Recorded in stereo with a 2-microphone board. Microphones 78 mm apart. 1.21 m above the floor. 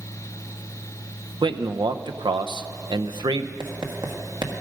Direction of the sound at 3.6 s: 70° right (ahead or behind).